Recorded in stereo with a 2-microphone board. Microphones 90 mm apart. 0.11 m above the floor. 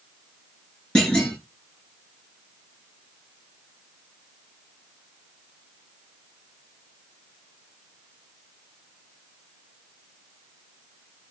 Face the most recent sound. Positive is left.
turn(degrees=10)  # may be behind; listen again after turning